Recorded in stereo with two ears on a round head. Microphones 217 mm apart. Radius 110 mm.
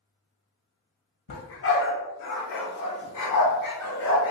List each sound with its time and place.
1.3 s a dog barking: 50° left (ahead or behind), 1.0 m; by 4.3 s 75° left (ahead or behind), 2.0 m